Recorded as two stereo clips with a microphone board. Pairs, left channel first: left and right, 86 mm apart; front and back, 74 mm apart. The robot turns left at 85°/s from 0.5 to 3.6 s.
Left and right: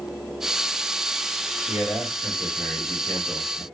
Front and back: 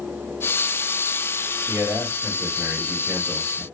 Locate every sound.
1.7 s a man speaking: 145° right, 1.6 m; by 3.6 s 55° left, 1.6 m